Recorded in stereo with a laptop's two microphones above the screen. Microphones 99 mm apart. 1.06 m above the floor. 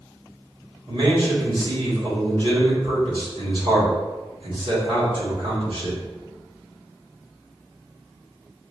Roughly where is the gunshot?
No gunshot in this recording.